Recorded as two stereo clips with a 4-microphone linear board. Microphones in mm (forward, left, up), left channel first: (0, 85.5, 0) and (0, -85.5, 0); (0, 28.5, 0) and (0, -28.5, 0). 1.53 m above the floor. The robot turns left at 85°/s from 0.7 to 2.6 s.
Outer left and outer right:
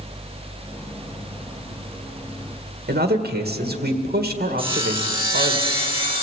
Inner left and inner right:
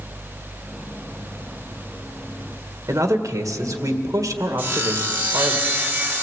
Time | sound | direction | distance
2.9 | a man speaking | 75° right (ahead or behind) | 1.8 m
4.6 | sawing | 35° right (ahead or behind) | 1.7 m